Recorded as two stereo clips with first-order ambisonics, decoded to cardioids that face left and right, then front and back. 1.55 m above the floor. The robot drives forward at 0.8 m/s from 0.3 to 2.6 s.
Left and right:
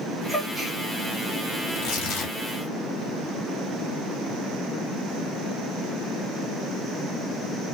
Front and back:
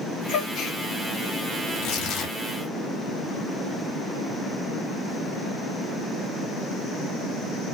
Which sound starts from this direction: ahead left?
Tearing paper, at 1.7 s.